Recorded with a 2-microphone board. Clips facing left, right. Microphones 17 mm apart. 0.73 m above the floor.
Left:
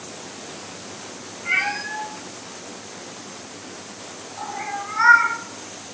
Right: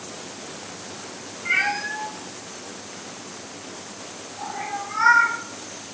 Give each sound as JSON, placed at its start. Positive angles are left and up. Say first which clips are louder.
{"t": 1.4, "sound": "a cat meowing", "louder": "even", "side_deg": -5, "distance_m": 2.5}